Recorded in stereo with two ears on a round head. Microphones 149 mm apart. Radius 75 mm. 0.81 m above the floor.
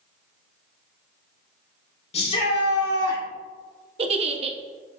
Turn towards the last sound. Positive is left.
turn(degrees=-35)  # may be behind; listen again after turning